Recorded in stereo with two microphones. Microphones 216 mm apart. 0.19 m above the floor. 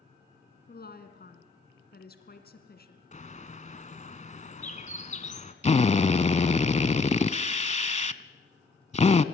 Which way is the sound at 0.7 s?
45° left (ahead or behind).